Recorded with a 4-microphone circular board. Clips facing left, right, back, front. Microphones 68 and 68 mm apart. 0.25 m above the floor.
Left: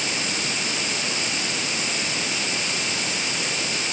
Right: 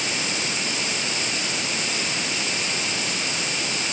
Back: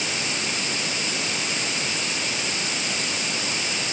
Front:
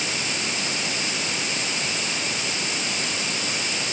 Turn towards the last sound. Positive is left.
No sound to turn to.